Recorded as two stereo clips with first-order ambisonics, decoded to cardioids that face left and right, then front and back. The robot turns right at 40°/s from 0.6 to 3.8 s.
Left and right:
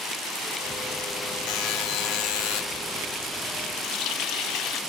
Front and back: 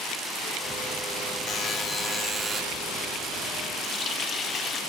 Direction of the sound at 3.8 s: 60° left.